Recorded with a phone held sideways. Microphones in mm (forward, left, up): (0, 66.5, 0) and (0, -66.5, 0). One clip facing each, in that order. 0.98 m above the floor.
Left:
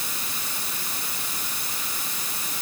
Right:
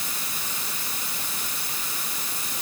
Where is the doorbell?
No doorbell in this recording.